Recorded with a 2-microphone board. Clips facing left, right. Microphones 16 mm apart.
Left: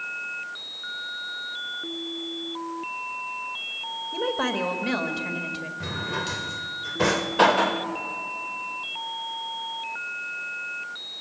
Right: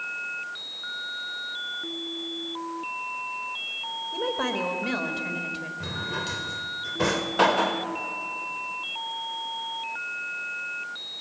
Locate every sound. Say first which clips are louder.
4.1 s a woman speaking: left 2 dB; 15° left (ahead or behind), 1.9 m
5.8 s a drawer: left 2 dB; 5° left (ahead or behind), 0.9 m